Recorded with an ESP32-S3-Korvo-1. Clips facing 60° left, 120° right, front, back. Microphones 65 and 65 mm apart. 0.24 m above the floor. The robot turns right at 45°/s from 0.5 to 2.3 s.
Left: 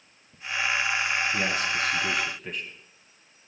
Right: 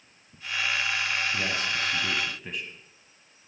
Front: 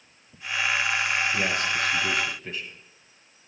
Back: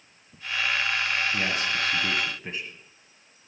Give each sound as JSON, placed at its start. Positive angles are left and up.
{"t": 1.3, "sound": "a man speaking", "azimuth_deg": 105, "distance_m": 1.3}